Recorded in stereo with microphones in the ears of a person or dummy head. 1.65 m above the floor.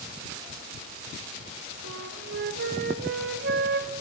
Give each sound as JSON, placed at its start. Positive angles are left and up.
{"t": 1.8, "sound": "a flute", "side_deg": -55, "distance_m": 1.0}